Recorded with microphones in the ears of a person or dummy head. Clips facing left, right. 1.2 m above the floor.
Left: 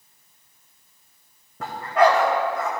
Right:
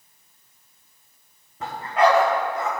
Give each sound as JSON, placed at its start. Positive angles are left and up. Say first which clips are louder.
{"t": 1.6, "sound": "a dog barking", "louder": "left 1 dB", "side_deg": 50, "distance_m": 2.5}